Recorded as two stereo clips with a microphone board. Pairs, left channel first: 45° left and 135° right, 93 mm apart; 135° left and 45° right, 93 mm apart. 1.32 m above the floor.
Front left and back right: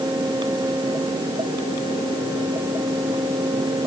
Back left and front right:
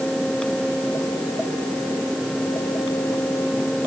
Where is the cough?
I don't hear a cough.